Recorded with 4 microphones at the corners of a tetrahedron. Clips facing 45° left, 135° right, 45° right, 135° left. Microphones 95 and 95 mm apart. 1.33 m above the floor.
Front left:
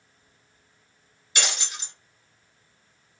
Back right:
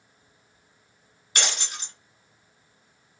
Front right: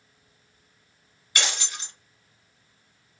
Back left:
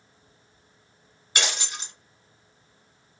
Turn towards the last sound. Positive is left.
turn(degrees=-160)